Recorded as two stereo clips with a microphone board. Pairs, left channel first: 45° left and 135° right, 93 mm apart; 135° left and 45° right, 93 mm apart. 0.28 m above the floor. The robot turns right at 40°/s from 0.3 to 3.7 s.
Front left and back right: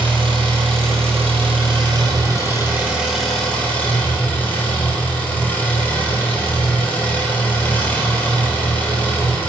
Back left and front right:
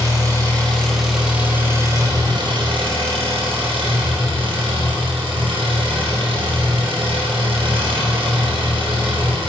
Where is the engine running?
165° right, 3.5 m; by 9.5 s 25° right, 3.5 m.